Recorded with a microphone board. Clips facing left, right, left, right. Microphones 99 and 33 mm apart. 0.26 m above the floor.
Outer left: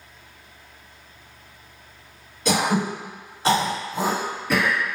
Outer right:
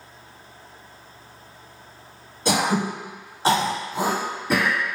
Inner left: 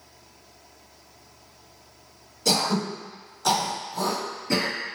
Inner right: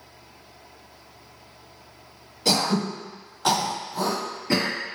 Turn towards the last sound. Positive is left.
turn(degrees=-30)  # may be behind; listen again after turning